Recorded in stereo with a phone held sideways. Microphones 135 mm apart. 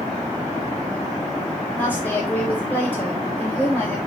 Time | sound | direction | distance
1.8 | a woman speaking | 15° left (ahead or behind) | 4.5 m